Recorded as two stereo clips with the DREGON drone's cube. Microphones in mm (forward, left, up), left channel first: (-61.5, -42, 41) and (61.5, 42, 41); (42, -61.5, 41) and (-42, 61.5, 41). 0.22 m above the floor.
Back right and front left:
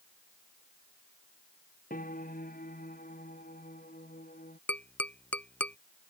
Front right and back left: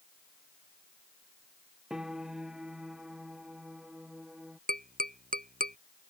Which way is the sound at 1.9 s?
150° right.